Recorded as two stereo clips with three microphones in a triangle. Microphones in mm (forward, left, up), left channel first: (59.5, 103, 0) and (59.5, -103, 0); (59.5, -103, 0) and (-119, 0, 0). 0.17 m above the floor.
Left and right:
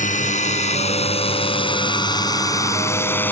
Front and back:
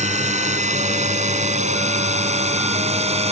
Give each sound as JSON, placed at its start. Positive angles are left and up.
{"t": 0.0, "sound": "a drone", "azimuth_deg": 115}